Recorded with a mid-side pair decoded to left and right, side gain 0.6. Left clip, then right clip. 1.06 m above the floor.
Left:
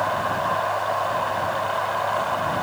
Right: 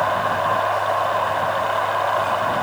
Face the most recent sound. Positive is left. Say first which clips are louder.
# right 3 dB
turn(degrees=-20)